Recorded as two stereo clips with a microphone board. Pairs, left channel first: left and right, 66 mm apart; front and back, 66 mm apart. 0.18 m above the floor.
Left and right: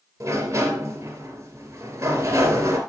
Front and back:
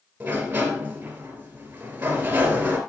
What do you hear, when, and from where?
0.2 s a sliding door: 115° right, 3 m